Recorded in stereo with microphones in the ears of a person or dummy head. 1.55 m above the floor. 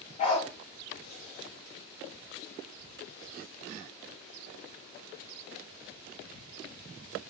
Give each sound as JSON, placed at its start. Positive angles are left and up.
{"t": 0.2, "sound": "a dog barking", "side_deg": 35, "distance_m": 1.9}